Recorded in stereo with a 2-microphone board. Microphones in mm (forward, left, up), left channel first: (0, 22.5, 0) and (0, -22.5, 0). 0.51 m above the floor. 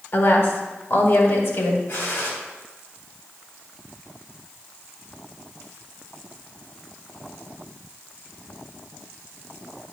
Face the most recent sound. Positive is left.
turn(degrees=60)  # may be behind; listen again after turning